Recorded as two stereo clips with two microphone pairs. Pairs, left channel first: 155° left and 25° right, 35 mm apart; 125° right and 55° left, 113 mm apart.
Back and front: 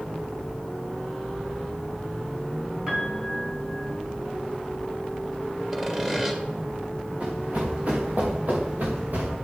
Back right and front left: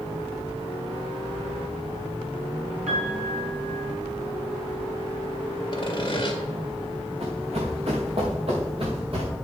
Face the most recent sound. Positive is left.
turn(degrees=20)